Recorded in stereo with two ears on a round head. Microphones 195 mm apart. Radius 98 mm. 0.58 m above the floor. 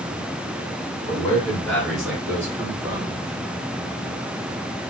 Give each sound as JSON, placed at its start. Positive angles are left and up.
{"t": 1.1, "sound": "a man speaking", "side_deg": 15, "distance_m": 1.3}